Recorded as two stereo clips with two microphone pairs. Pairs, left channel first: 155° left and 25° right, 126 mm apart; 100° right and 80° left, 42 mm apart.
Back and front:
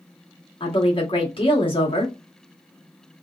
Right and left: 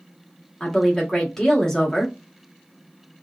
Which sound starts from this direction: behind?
A woman speaking, at 0.6 s.